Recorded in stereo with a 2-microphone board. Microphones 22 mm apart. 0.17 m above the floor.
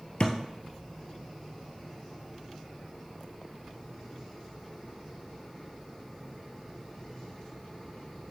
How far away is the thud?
About 1.3 m.